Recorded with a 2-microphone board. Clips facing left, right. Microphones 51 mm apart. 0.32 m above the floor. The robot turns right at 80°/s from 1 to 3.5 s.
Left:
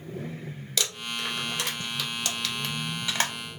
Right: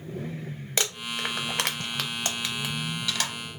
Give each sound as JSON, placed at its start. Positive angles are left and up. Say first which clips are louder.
{"t": 0.8, "sound": "crumpling", "louder": "right 2 dB", "side_deg": -35, "distance_m": 0.6}